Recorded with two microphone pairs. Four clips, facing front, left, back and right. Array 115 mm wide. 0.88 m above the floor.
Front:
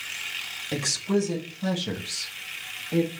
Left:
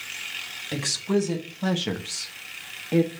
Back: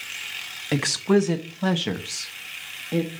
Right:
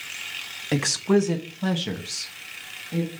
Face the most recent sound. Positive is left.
turn(degrees=115)